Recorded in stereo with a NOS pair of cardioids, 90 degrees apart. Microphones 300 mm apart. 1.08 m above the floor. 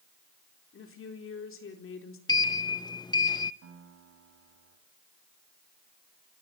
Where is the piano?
55° right, 4.5 m.